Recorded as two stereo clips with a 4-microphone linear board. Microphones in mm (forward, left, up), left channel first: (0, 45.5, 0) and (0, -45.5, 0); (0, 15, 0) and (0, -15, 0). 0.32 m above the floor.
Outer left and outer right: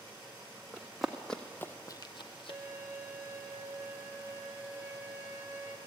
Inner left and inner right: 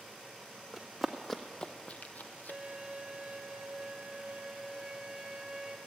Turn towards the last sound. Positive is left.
turn(degrees=-25)  # may be behind; listen again after turning